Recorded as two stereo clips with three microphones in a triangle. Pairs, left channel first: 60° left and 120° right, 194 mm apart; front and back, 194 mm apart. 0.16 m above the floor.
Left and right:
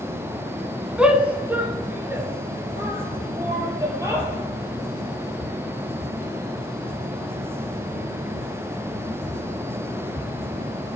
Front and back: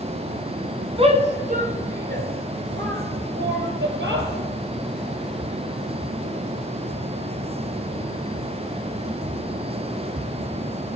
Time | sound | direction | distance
1.0 | a shout | 160° left | 1.4 m